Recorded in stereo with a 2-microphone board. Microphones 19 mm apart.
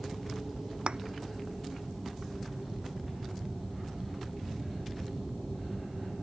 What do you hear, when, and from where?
0.9 s a thud: 60° right (ahead or behind)